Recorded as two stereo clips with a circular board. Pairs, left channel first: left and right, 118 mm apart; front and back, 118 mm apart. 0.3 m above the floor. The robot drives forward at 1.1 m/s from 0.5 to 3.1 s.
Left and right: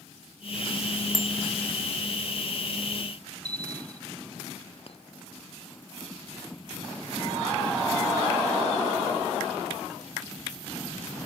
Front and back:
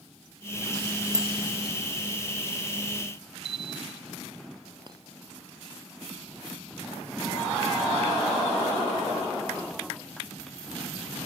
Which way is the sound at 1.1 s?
Straight behind.